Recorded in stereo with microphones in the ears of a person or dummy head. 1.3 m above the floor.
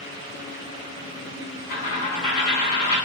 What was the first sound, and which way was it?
A dropped coin, 30° left (ahead or behind).